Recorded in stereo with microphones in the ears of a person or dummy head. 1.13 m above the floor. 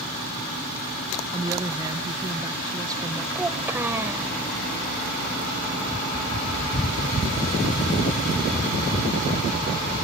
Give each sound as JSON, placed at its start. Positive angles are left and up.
{"t": 1.3, "sound": "a woman speaking", "side_deg": -15}
{"t": 3.4, "sound": "a child speaking", "side_deg": -10}